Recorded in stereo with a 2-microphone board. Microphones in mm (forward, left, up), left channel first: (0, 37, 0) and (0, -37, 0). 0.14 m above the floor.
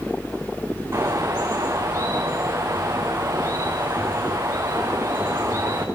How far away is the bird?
About 3 m.